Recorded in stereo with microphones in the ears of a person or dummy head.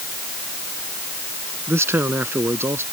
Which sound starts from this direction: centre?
A man speaking, at 1.7 s.